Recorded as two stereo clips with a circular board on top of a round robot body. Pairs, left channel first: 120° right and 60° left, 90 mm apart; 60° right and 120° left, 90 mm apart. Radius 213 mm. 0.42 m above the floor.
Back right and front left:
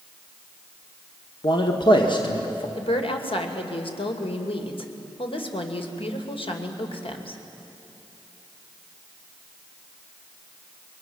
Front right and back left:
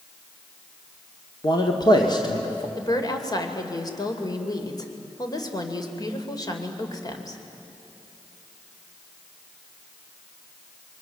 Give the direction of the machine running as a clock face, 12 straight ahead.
No machine running in this recording.